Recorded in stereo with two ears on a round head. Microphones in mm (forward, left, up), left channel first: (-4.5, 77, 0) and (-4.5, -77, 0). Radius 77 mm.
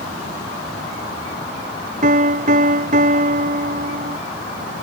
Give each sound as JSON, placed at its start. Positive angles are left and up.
{"t": 2.0, "sound": "a piano", "side_deg": -45}